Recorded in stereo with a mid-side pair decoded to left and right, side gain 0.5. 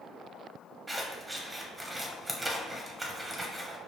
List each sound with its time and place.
0.9 s scissors: 10° right, 0.8 m